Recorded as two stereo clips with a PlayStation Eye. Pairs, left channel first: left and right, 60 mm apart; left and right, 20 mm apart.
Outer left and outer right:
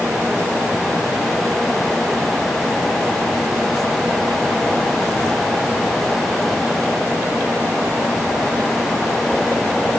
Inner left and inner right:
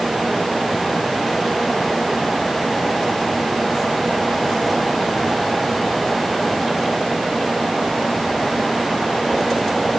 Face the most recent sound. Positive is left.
No sound to turn to.